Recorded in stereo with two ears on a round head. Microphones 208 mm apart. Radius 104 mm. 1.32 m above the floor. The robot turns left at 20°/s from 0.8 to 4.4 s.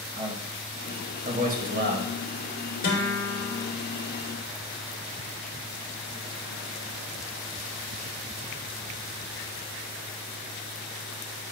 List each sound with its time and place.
0.2 s a man speaking: 20° right (ahead or behind), 1.9 m; by 2.1 s 45° right (ahead or behind), 1.9 m
2.8 s a guitar: 35° left (ahead or behind), 2.5 m; by 3.6 s 20° left (ahead or behind), 2.5 m